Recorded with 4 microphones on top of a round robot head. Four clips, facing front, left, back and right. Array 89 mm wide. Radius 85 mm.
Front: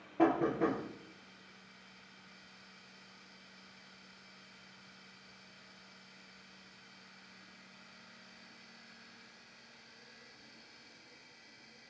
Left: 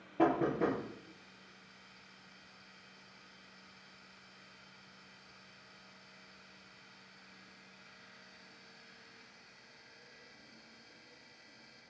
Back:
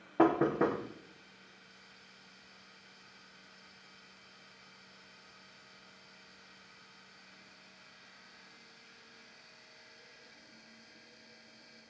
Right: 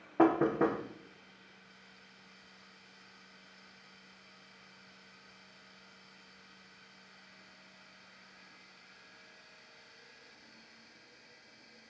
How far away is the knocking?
About 0.8 m.